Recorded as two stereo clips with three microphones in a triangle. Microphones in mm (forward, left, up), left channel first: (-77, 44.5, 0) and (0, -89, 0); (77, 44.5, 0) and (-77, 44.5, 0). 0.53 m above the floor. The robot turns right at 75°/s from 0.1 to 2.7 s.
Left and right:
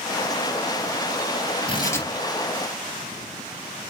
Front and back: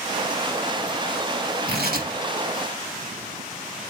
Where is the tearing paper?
175° left, 3 m; by 2.1 s 155° right, 3 m.